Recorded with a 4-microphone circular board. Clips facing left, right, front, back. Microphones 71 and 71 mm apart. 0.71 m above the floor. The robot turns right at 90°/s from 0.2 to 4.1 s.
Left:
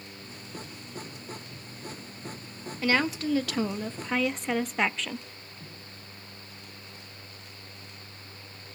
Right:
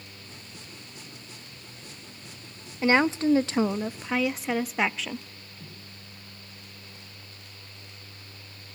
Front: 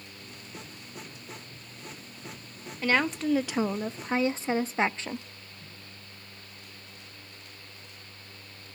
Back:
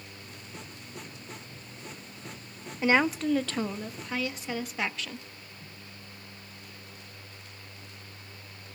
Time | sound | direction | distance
2.8 | a woman speaking | 125° right | 0.5 m